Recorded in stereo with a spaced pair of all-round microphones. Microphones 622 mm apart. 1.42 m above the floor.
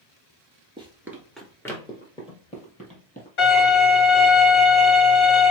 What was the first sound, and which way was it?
Running footsteps, 10° right (ahead or behind).